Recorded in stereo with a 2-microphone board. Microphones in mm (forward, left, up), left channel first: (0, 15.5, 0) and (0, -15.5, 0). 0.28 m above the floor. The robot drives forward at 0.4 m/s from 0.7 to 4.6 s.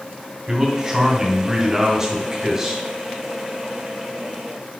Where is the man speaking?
15° right (ahead or behind), 2.5 m; by 2.8 s 25° right (ahead or behind), 2 m.